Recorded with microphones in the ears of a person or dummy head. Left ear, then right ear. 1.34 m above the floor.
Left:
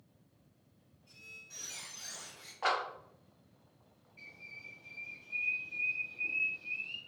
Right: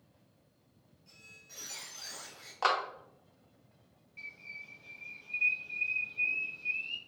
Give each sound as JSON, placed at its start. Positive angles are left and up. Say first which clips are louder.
{"t": 1.1, "sound": "a squeak", "louder": "left 3 dB", "side_deg": -55, "distance_m": 1.3}
{"t": 2.6, "sound": "a clap", "louder": "right 3 dB", "side_deg": -80, "distance_m": 0.8}
{"t": 4.2, "sound": "a bird", "louder": "right 4 dB", "side_deg": -45, "distance_m": 1.7}